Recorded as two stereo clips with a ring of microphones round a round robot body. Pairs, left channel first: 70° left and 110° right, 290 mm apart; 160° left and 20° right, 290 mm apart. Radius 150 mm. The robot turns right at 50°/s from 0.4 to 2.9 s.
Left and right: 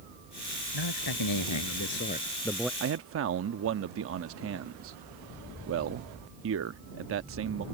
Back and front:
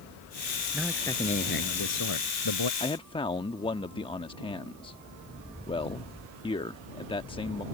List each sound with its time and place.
0.7 s a man speaking: 60° left; by 2.7 s 160° left
2.8 s a man speaking: 140° right; by 7.7 s 135° right